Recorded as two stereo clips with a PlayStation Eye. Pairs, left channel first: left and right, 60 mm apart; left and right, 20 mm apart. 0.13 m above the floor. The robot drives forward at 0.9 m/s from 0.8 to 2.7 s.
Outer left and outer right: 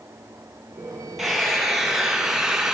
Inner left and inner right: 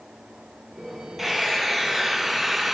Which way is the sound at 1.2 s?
5° right (ahead or behind).